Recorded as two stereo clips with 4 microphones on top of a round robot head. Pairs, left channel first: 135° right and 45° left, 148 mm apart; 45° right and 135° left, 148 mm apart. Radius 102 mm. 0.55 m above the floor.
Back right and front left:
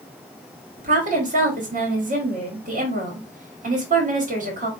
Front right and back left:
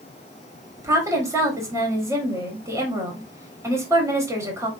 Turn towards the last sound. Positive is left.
turn(degrees=65)